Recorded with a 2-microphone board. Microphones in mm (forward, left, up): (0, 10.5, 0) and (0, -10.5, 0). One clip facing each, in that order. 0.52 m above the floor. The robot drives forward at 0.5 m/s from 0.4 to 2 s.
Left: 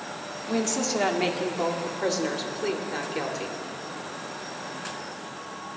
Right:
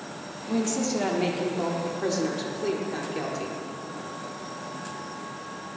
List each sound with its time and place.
0.5 s a woman speaking: 30° left (ahead or behind), 0.9 m; by 3.6 s 25° left (ahead or behind), 1.0 m